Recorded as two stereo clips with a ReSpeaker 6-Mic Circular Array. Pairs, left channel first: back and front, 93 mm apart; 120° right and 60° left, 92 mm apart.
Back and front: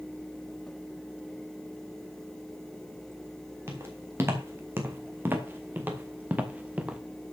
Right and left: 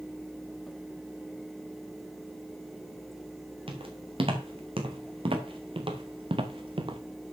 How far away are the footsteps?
About 3 m.